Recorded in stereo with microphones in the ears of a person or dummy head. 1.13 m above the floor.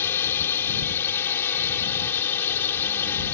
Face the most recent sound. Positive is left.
turn(degrees=10)  # may be behind; listen again after turning